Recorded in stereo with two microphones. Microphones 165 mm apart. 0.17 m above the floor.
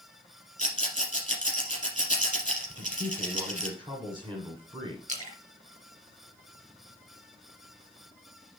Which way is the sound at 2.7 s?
30° right (ahead or behind).